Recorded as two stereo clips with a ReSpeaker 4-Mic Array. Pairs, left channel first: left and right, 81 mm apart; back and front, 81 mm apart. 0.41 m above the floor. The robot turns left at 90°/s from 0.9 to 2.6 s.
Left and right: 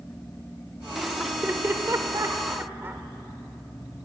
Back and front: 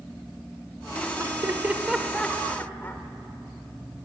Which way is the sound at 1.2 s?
5° right.